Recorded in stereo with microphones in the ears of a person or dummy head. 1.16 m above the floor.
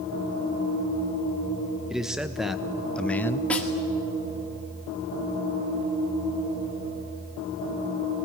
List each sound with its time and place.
1.9 s a man speaking: centre (ahead or behind), 1.5 m; by 3.4 s 15° left (ahead or behind), 0.7 m
3.5 s a snare drum: 5° left (ahead or behind), 2.0 m